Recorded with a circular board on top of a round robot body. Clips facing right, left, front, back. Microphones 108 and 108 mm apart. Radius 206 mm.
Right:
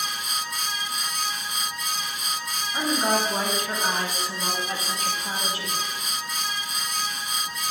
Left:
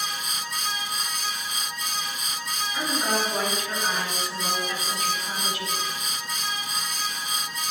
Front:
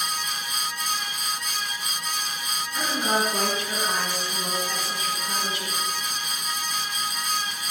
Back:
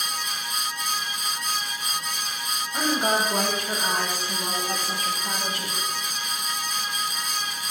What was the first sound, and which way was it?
A woman speaking, 140° right.